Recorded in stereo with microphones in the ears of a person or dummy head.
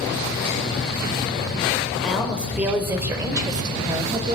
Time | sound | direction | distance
2.0 | a woman speaking | centre (ahead or behind) | 5.5 m